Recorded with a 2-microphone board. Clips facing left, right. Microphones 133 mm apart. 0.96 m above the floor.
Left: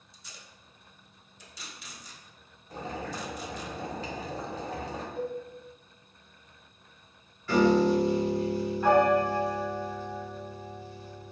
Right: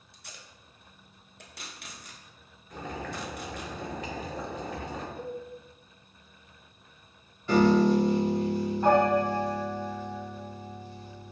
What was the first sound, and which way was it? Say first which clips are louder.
Tape being pulled: right 2 dB; 60° right (ahead or behind).